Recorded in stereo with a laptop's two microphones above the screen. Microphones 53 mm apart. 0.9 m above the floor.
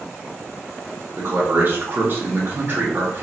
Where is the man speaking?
40° right (ahead or behind), 1.2 m.